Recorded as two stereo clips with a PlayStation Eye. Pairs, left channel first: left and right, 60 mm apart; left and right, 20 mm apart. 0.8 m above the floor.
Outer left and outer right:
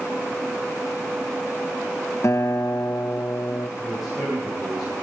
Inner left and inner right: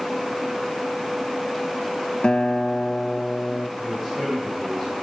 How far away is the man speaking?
About 5.5 m.